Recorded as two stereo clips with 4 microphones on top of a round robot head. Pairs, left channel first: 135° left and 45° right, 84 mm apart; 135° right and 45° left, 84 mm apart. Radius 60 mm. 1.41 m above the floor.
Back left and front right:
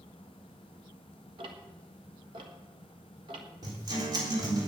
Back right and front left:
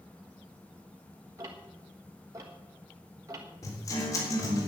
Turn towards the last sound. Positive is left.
turn(degrees=-85)